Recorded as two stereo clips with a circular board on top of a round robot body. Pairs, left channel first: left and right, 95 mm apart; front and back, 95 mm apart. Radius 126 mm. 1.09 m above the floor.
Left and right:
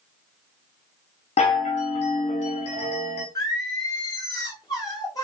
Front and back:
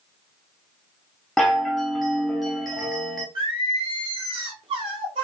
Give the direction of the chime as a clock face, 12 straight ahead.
9 o'clock.